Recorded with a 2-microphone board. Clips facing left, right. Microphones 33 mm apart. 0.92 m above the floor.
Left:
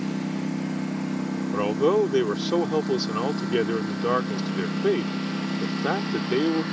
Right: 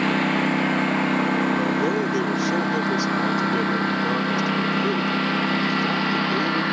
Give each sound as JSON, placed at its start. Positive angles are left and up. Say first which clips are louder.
{"t": 0.0, "sound": "a lawn mower", "louder": "right 8 dB", "side_deg": -50}
{"t": 1.5, "sound": "a man speaking", "louder": "even", "side_deg": 25}